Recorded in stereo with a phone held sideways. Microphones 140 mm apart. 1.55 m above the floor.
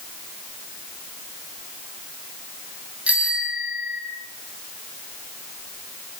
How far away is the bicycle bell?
About 9.5 m.